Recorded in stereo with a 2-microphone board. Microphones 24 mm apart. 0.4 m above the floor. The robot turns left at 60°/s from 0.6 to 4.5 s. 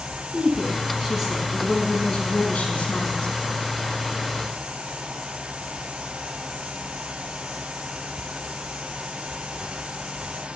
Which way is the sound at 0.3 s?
130° right.